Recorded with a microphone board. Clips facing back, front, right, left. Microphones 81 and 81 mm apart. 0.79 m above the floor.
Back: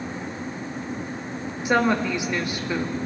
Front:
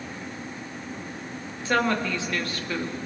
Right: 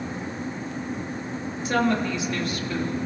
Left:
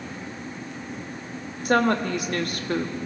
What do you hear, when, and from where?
1.6 s a woman speaking: 110° left, 1.5 m